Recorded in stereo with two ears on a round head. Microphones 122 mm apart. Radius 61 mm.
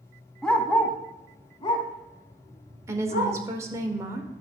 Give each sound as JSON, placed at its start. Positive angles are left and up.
{"t": 0.4, "sound": "a dog barking", "side_deg": 5, "distance_m": 1.1}
{"t": 2.9, "sound": "a woman speaking", "side_deg": -20, "distance_m": 1.3}